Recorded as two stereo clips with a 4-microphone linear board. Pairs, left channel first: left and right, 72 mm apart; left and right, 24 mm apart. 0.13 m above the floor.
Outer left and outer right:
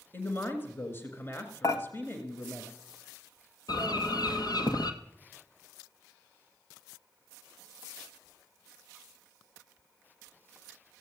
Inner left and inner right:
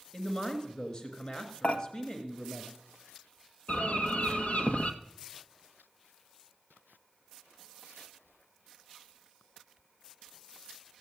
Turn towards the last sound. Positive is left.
turn(degrees=70)  # may be behind; listen again after turning